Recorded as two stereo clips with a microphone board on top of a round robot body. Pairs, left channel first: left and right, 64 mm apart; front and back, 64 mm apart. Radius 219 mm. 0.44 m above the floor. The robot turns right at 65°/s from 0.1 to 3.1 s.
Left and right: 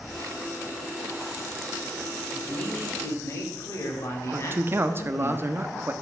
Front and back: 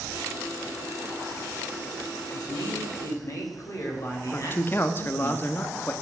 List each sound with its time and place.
2.3 s a man speaking: 10° right, 3 m; by 5.3 s 45° left, 3 m
4.3 s a man speaking: 50° right, 1.1 m